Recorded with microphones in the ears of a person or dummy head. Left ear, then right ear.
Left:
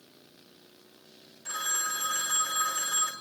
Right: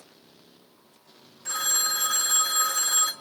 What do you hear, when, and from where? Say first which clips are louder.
1.4 s a phone ringing: right 5 dB; 20° right (ahead or behind), 3 m